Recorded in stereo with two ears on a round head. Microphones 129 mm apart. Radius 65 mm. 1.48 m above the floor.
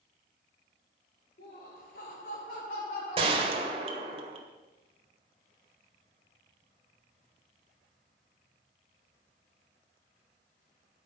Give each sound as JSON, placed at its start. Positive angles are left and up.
{"t": 1.4, "sound": "laughter", "side_deg": 70, "distance_m": 5.0}
{"t": 3.2, "sound": "a gunshot", "side_deg": -40, "distance_m": 1.8}